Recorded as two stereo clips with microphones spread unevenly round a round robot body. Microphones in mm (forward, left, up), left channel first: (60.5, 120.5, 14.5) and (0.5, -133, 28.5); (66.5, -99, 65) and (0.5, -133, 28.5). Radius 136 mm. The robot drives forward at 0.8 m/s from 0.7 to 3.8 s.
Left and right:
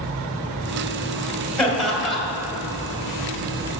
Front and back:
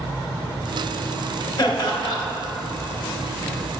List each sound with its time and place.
1.6 s laughter: 10° right, 2.5 m